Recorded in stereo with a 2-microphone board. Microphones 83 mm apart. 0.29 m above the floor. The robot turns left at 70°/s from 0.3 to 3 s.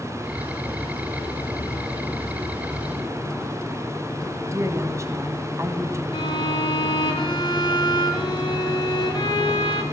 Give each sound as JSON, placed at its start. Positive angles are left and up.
{"t": 4.5, "sound": "a woman speaking", "side_deg": -35, "distance_m": 2.0}
{"t": 6.1, "sound": "a violin", "side_deg": 70, "distance_m": 3.0}